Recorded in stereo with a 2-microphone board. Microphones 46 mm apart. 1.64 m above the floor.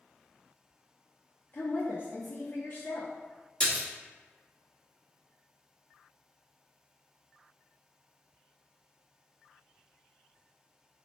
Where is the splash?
20° left (ahead or behind), 1.2 m.